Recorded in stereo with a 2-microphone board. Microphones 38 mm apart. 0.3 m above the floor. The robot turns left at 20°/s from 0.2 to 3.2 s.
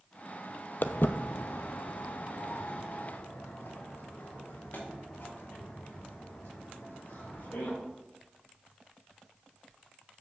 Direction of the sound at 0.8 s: 55° left (ahead or behind).